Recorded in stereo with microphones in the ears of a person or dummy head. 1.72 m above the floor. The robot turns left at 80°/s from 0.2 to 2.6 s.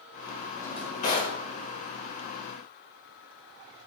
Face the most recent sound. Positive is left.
turn(degrees=5)